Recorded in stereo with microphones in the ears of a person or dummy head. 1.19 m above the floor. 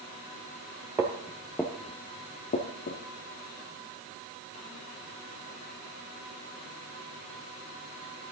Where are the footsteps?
20° right (ahead or behind), 1.5 m; by 3.0 s 45° left (ahead or behind), 1.6 m.